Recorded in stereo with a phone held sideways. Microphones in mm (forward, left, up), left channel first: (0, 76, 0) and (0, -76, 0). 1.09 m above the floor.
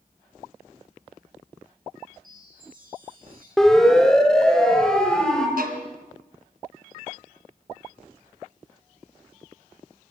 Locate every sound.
2.2 s a chime: 65° right (ahead or behind), 10 m
3.6 s a siren: 5° left (ahead or behind), 2.5 m
5.6 s a violin: 70° right (ahead or behind), 2.5 m